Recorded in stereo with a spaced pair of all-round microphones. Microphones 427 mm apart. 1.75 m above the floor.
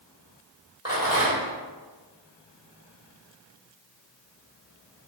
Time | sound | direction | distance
0.8 | a rattle | 10° right (ahead or behind) | 1.8 m